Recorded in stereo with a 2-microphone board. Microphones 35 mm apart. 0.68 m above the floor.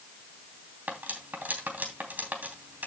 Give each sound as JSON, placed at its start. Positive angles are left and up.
{"t": 0.9, "sound": "cutlery clinking", "side_deg": -65, "distance_m": 3.0}